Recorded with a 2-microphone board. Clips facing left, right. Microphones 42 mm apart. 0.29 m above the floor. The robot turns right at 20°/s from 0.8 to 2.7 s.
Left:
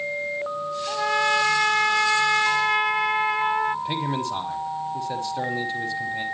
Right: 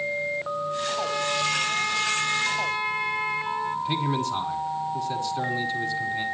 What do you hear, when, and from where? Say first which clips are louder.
0.9 s a trumpet: left 8 dB; 75° left, 0.6 m; by 3.8 s 110° left, 0.6 m
3.9 s a man speaking: even; 20° left (ahead or behind), 1.5 m